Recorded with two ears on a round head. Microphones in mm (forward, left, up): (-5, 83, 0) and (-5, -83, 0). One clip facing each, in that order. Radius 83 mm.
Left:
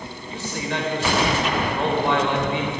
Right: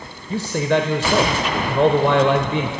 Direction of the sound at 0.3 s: 60° right (ahead or behind).